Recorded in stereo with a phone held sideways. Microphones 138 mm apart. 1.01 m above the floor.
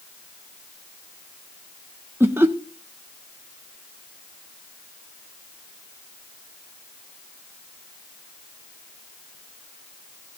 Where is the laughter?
15° right (ahead or behind), 1.1 m.